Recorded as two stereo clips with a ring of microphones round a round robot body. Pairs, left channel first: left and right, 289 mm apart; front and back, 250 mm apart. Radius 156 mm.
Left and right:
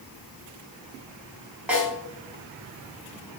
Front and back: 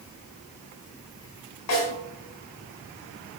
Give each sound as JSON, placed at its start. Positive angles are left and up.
{"t": 1.7, "sound": "a snare drum", "azimuth_deg": -5, "distance_m": 5.0}